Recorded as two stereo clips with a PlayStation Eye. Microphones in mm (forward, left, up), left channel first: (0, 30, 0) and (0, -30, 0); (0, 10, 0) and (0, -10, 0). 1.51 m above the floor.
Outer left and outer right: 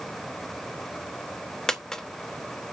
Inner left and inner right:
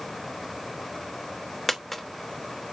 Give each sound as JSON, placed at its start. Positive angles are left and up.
{"t": 1.7, "sound": "a dropped coin", "side_deg": 10, "distance_m": 0.9}